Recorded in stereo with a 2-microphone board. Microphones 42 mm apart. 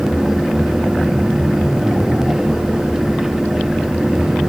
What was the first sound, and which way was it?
Only background noise.